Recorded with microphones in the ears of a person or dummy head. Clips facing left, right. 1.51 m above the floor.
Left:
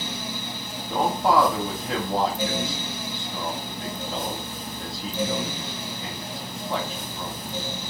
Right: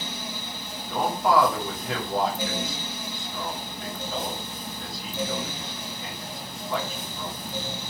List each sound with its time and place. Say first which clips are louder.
0.9 s a man speaking: left 1 dB; 30° left (ahead or behind), 1.4 m